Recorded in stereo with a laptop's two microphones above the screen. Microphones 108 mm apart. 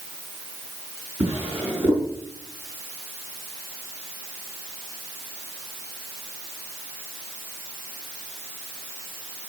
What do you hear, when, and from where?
1.2 s a drawer: 15° right (ahead or behind), 4.5 m